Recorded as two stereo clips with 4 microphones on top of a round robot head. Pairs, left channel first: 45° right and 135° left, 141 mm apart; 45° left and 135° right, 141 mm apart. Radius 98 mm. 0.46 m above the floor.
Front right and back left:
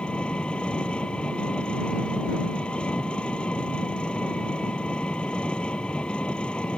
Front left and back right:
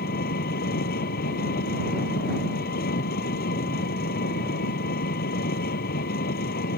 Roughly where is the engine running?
Ahead left.